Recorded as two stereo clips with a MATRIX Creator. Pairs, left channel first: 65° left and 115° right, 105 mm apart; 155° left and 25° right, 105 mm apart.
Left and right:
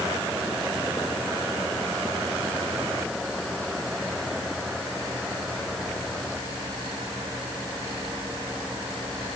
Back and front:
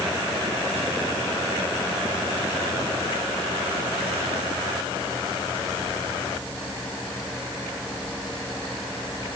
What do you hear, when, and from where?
Only background noise.